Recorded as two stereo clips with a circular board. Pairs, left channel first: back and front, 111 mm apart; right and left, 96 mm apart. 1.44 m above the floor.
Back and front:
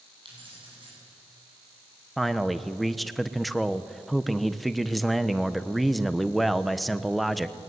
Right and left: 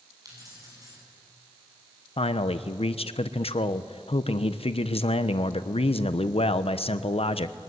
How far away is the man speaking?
About 0.9 m.